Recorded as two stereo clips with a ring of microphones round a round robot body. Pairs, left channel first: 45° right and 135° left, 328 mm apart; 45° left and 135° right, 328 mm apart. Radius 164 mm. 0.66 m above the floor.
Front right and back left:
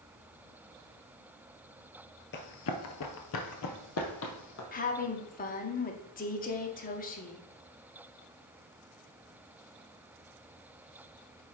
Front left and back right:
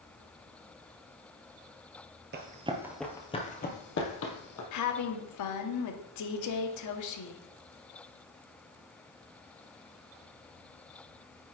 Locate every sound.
2.3 s running footsteps: 90° right, 0.8 m; by 4.6 s 5° left, 1.5 m
4.7 s a woman speaking: 15° left, 0.9 m